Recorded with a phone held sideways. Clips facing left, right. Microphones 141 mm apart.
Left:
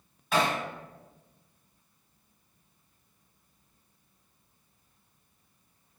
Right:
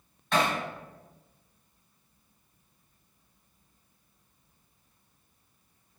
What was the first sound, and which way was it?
Hammering, 5° left (ahead or behind).